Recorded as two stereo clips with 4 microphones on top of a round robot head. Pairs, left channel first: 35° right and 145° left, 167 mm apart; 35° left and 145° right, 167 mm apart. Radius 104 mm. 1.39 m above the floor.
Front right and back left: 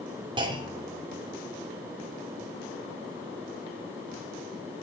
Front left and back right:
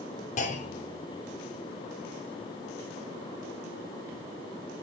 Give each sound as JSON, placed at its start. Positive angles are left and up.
{"t": 0.4, "sound": "a clunk", "azimuth_deg": 85, "distance_m": 3.0}